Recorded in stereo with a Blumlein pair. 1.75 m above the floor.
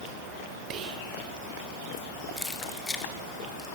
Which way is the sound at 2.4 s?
5° left.